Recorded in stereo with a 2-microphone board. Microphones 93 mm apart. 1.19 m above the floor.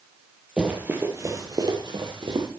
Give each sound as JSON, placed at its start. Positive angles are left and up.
{"t": 0.6, "sound": "running footsteps", "side_deg": -10, "distance_m": 2.5}